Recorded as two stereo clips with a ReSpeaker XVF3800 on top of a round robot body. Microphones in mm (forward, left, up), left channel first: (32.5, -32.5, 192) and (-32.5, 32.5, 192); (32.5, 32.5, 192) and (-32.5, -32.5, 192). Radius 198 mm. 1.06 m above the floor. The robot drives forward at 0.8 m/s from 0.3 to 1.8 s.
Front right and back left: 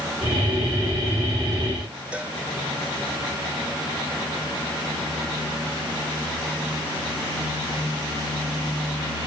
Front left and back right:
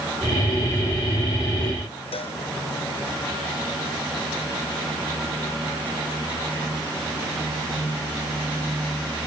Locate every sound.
2.1 s a cowbell: 60° left